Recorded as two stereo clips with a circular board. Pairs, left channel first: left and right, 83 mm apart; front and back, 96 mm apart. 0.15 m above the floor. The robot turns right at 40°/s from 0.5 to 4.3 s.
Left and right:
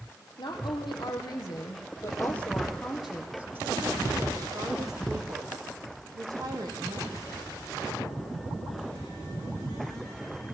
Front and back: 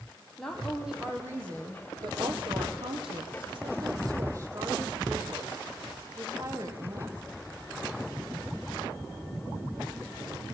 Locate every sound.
0.4 s a woman speaking: 80° left, 5.5 m; by 7.2 s 125° right, 5.5 m